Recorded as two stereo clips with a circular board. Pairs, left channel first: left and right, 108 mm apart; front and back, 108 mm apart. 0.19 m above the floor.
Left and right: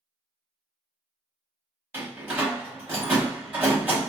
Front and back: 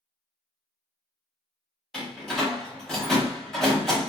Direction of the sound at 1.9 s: 85° right.